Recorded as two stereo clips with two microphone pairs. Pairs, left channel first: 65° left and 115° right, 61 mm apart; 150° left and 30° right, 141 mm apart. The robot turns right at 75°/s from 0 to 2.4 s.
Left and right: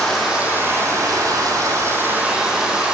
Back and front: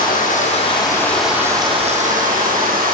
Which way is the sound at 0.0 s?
145° left.